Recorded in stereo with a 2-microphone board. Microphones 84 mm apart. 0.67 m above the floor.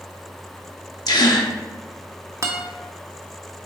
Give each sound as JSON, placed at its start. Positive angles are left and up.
{"t": 1.1, "sound": "a gasp", "side_deg": 55, "distance_m": 0.8}
{"t": 2.4, "sound": "a guitar", "side_deg": -35, "distance_m": 0.9}